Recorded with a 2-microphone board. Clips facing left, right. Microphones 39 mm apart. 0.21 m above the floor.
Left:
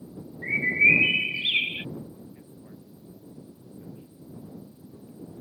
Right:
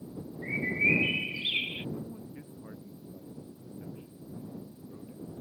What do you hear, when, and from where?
0.4 s a bird: 40° left (ahead or behind)
1.9 s a man speaking: 30° right (ahead or behind)